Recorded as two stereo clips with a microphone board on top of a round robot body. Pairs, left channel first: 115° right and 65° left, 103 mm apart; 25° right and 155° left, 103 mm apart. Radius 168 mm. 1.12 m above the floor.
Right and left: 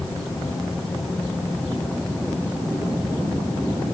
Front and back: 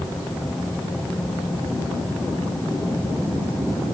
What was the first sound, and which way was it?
Only background noise.